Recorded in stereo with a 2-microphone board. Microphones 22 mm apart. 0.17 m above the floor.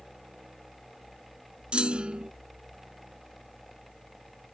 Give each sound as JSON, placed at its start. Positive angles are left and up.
{"t": 1.7, "sound": "a clunk", "side_deg": -50}